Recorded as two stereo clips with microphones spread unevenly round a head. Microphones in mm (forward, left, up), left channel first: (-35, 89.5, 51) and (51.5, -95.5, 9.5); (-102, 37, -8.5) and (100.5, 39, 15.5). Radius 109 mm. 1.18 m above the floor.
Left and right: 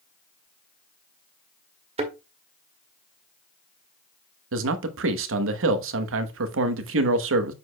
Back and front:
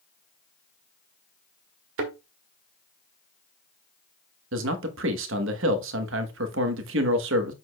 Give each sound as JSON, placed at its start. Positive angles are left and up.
{"t": 2.0, "sound": "a thud", "azimuth_deg": 0, "distance_m": 1.7}
{"t": 4.5, "sound": "a man speaking", "azimuth_deg": -35, "distance_m": 1.1}